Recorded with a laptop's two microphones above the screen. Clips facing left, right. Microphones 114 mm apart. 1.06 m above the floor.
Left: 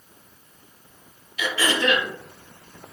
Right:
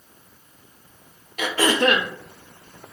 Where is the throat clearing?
50° right (ahead or behind), 0.5 m.